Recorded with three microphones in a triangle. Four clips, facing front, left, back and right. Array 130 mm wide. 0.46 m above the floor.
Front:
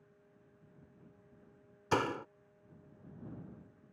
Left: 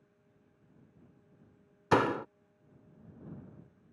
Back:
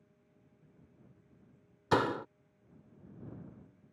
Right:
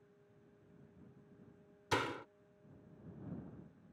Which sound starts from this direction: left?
A door slam, at 1.9 s.